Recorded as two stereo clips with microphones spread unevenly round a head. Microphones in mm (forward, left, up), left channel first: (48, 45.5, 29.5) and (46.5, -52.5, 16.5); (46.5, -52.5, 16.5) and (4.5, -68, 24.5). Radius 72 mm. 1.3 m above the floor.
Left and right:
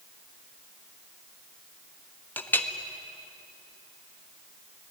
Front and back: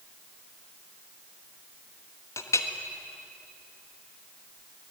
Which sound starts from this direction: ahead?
A clink, at 2.4 s.